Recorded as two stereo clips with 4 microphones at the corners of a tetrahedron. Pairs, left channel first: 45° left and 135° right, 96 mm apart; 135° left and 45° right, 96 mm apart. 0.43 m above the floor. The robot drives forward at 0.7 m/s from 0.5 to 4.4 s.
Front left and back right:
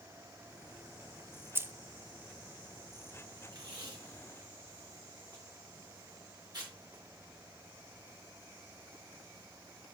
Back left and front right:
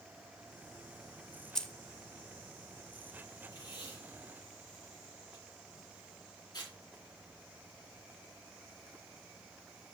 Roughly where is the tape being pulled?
Behind.